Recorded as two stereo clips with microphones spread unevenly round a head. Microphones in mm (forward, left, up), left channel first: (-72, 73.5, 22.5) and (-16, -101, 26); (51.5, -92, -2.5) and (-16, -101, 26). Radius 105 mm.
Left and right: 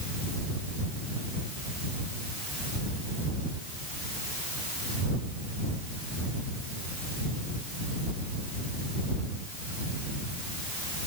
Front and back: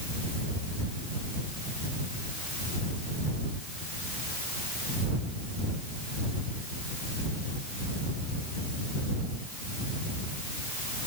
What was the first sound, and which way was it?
Only background noise.